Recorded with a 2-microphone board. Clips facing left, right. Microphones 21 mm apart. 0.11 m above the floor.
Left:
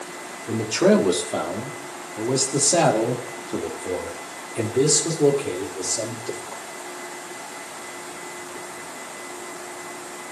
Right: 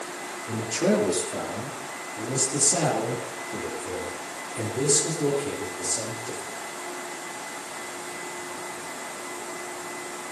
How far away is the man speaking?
About 5 m.